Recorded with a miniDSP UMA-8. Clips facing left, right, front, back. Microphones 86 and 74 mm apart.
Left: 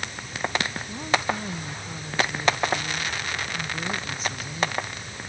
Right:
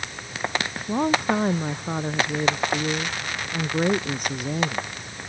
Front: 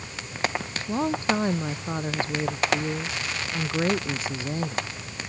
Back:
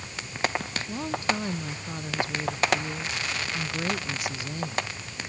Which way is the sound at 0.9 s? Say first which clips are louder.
Right 6 dB, front 5 dB; 55° right.